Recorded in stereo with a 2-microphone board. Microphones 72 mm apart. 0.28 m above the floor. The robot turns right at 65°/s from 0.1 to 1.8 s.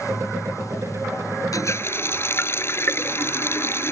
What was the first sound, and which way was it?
A running tap, 50° left (ahead or behind).